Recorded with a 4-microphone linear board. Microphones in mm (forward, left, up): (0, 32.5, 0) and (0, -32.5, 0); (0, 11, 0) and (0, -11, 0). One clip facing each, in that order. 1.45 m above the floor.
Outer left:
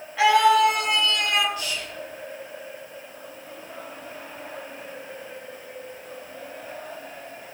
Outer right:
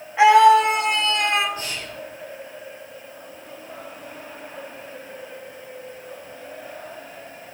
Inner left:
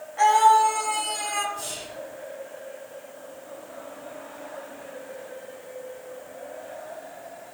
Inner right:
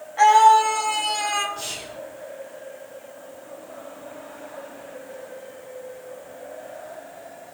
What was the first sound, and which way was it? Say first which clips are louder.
A scream: outer right 5 dB, inner right 3 dB; 25° right (ahead or behind).